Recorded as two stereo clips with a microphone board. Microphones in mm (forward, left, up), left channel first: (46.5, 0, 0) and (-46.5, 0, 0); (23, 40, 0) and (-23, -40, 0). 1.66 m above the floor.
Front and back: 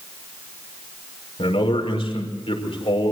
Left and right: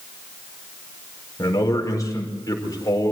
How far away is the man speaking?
About 5 m.